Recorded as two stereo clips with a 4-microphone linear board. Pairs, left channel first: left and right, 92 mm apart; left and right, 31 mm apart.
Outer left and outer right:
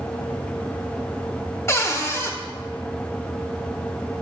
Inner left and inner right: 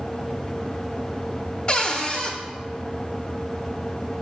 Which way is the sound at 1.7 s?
30° left (ahead or behind).